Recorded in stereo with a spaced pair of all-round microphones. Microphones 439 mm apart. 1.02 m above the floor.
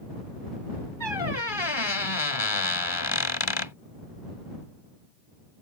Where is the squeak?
70° left (ahead or behind).